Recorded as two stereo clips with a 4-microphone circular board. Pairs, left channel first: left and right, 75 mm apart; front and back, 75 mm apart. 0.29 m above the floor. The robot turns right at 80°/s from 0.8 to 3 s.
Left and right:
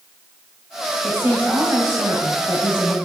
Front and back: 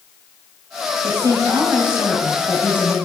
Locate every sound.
1.0 s a woman speaking: 175° left, 1.5 m; by 3.0 s 30° right, 1.5 m